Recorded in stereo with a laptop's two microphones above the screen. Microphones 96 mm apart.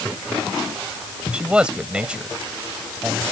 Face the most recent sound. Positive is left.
turn(degrees=-10)  # may be behind; listen again after turning